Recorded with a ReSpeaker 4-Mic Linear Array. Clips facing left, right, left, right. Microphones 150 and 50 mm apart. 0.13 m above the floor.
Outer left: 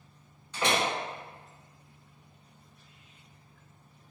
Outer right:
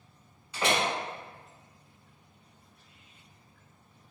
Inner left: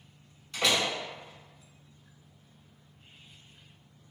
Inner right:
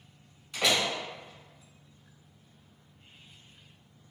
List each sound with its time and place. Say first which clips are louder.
0.5 s a door slam: even, even; 10° right (ahead or behind), 1.2 m